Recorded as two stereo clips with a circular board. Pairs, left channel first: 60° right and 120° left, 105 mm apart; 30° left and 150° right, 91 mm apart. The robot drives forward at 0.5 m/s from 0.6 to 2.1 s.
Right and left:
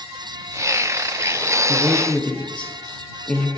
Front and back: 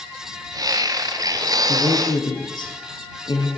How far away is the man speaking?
About 2 m.